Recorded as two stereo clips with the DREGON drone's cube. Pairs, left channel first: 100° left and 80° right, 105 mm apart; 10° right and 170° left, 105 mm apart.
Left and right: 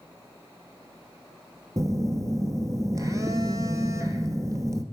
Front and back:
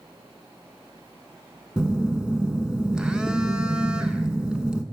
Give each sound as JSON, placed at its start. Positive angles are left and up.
{"t": 1.8, "sound": "a phone buzzing", "azimuth_deg": -110, "distance_m": 0.7}